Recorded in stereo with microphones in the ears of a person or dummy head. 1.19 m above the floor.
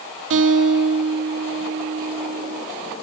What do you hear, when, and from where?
0.3 s a guitar: 65° right (ahead or behind), 3 m